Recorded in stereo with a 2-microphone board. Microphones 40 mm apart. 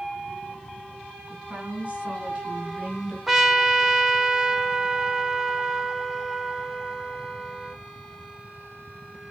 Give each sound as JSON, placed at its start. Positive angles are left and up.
{"t": 1.3, "sound": "a woman speaking", "side_deg": -40, "distance_m": 8.0}
{"t": 3.3, "sound": "a trumpet", "side_deg": -10, "distance_m": 1.2}